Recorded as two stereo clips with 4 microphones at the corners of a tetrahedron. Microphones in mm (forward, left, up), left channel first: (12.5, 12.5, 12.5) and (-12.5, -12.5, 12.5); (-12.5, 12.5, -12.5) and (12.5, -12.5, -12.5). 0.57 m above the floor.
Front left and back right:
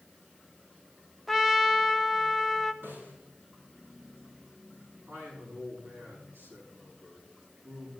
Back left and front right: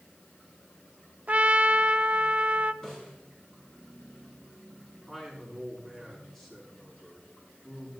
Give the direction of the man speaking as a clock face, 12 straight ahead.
5 o'clock.